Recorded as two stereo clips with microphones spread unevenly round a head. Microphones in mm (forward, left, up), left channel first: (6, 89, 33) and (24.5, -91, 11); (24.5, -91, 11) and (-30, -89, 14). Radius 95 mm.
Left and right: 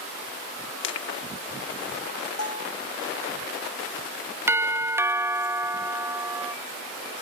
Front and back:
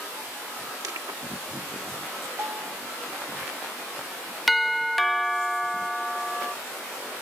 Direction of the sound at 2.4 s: 105° left.